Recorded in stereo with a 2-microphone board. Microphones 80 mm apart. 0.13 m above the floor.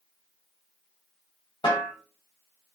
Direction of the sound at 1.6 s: 85° left.